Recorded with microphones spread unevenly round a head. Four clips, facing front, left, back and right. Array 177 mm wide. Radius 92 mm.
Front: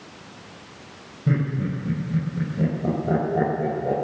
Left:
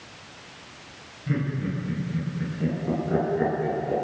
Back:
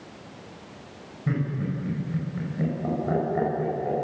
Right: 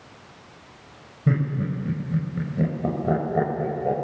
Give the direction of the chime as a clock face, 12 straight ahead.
No chime in this recording.